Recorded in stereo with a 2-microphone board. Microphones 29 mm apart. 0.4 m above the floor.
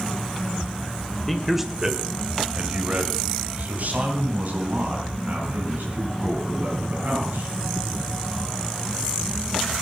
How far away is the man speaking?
About 1.7 m.